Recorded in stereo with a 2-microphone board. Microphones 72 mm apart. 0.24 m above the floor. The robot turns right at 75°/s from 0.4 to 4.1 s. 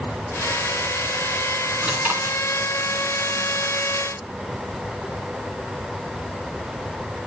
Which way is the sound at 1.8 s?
165° right.